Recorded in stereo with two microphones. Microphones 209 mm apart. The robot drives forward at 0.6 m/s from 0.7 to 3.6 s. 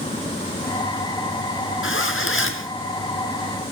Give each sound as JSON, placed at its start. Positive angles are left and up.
{"t": 1.8, "sound": "a zipper", "side_deg": 70, "distance_m": 2.5}